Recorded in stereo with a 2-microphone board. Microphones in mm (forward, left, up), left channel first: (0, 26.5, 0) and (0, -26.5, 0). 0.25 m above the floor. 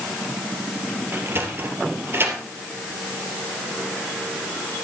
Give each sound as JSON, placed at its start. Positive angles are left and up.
{"t": 1.1, "sound": "a sliding door", "side_deg": -45, "distance_m": 3.0}